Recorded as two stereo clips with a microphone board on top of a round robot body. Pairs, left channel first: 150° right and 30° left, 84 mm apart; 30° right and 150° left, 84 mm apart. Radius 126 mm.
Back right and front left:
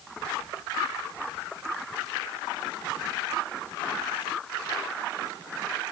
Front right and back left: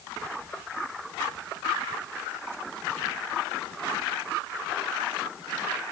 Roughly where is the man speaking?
No man speaking in this recording.